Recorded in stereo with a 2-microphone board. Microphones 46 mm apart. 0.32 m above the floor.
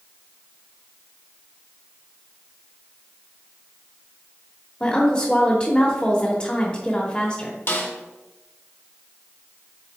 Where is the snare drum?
55° left (ahead or behind), 1.3 m.